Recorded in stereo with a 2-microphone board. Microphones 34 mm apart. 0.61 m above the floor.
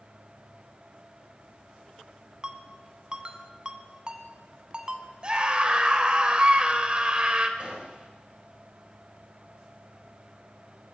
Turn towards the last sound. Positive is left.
turn(degrees=-35)  # may be behind; listen again after turning